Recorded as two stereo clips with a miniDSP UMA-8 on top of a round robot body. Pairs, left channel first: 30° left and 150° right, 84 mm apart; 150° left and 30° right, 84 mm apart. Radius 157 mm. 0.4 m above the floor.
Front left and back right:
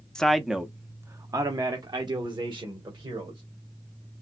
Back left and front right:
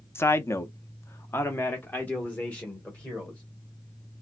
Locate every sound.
0.1 s a man speaking: 110° left, 0.9 m; by 3.4 s 135° right, 2.0 m